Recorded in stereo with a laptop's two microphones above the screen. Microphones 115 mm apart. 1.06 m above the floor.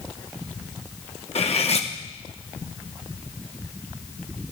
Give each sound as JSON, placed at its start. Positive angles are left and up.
{"t": 1.4, "sound": "cutlery clinking", "side_deg": 60, "distance_m": 0.8}